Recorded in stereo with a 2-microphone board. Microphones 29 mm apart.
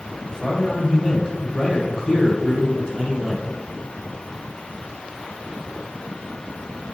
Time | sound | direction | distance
0.3 | a man speaking | 15° left (ahead or behind) | 1.3 m